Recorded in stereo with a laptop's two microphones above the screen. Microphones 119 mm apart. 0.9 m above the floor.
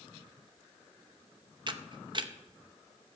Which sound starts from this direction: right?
A camera shutter, at 1.7 s.